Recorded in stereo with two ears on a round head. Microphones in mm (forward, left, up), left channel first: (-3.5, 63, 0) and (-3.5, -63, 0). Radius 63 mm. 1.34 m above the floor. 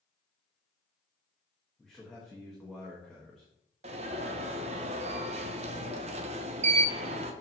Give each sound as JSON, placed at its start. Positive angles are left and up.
{"t": 1.8, "sound": "a man speaking", "side_deg": 5, "distance_m": 1.6}
{"t": 3.8, "sound": "an alarm", "side_deg": -45, "distance_m": 0.9}